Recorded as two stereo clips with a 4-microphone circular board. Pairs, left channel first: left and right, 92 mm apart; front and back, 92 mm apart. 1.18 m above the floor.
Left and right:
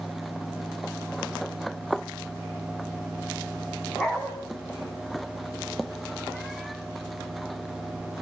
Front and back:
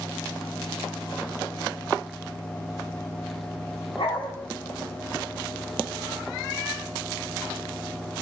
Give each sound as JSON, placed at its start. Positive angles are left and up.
{"t": 4.0, "sound": "a dog barking", "azimuth_deg": 10, "distance_m": 4.5}